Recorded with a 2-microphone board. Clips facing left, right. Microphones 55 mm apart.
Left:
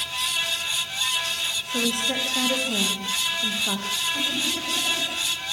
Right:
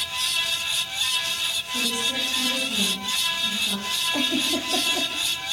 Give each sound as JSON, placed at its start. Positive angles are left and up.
{"t": 1.7, "sound": "a woman speaking", "side_deg": 65, "distance_m": 6.0}
{"t": 4.1, "sound": "a giggle", "side_deg": -60, "distance_m": 5.0}